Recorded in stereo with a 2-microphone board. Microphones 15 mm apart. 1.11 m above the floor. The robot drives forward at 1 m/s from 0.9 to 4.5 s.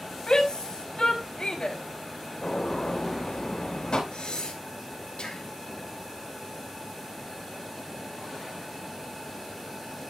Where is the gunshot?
75° left (ahead or behind), 4.5 m; by 4.0 s 80° left, 4 m.